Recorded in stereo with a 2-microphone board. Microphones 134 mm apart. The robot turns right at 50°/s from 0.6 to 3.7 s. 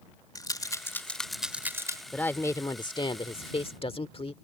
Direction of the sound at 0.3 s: 30° left (ahead or behind).